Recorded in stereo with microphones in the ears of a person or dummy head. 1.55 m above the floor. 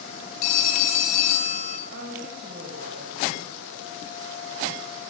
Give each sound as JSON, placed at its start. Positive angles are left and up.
{"t": 0.4, "sound": "a phone ringing", "side_deg": 45, "distance_m": 0.8}
{"t": 1.9, "sound": "a woman speaking", "side_deg": -50, "distance_m": 1.7}